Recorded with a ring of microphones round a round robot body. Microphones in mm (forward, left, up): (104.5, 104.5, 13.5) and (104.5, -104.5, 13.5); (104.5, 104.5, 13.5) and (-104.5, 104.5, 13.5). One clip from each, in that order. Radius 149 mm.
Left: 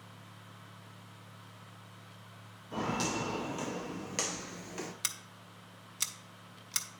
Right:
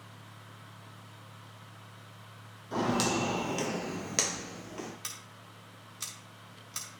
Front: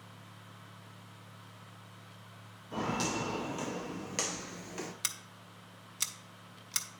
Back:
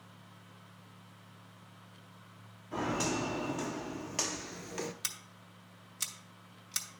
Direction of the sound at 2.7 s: 65° right.